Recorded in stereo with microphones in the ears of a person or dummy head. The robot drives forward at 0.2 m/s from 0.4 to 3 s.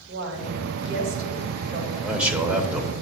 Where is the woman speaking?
65° right (ahead or behind), 2.0 m; by 1.9 s 60° right (ahead or behind), 2 m.